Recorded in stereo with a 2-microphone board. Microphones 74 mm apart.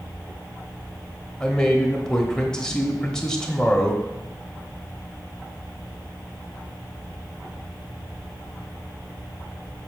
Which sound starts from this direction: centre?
A man speaking, at 1.4 s.